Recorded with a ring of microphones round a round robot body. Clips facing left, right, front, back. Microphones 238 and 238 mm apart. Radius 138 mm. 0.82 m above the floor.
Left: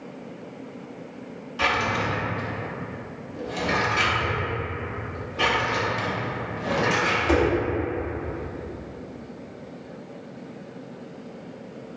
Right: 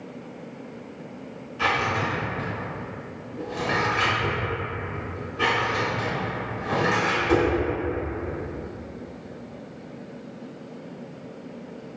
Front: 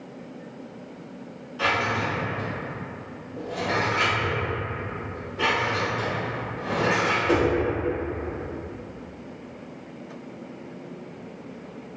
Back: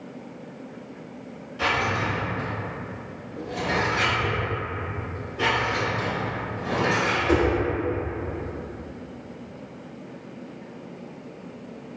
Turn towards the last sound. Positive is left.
turn(degrees=85)